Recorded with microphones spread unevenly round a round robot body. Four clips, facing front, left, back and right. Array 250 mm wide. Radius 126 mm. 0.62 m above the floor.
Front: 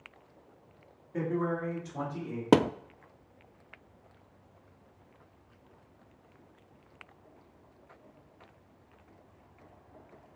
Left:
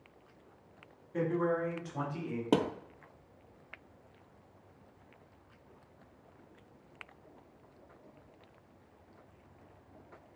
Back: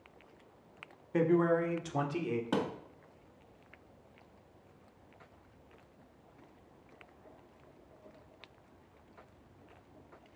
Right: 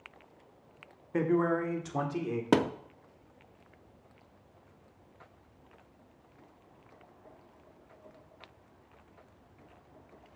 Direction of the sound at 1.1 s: 130° right.